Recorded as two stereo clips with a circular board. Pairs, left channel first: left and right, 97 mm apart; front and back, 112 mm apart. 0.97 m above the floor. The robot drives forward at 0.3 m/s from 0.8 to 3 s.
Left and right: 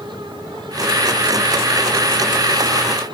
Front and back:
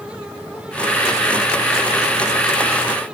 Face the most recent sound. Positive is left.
No sound to turn to.